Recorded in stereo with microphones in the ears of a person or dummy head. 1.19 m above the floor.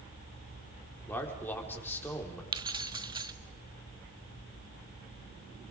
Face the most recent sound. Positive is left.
turn(degrees=-20)  # may be behind; listen again after turning